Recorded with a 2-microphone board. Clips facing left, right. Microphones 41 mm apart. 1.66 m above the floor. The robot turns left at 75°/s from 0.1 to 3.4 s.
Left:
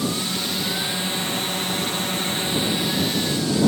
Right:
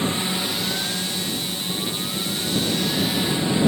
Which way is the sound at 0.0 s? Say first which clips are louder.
Right 1 dB; 140° right.